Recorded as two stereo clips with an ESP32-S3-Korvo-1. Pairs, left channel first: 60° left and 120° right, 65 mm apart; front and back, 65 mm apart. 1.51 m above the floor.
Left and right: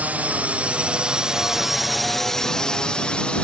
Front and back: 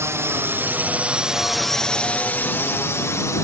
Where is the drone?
175° right; by 3.5 s 10° right.